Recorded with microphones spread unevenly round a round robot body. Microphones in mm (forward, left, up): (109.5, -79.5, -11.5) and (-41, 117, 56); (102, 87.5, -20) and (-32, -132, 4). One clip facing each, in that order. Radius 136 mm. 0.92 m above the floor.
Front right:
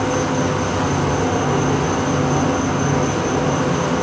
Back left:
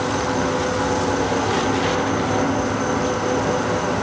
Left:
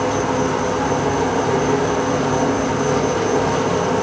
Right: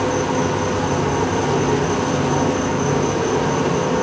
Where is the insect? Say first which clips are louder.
Front right 3 dB, even; 60° right, 3.5 m.